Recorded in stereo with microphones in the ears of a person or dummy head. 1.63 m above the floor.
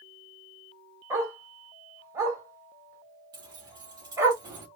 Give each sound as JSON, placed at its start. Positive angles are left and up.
{"t": 1.1, "sound": "a dog barking", "side_deg": -15, "distance_m": 1.9}
{"t": 3.3, "sound": "keys jangling", "side_deg": -20, "distance_m": 1.7}